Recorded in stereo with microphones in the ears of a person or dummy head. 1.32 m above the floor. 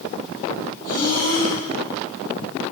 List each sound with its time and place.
0.8 s breathing: 50° left (ahead or behind), 5 m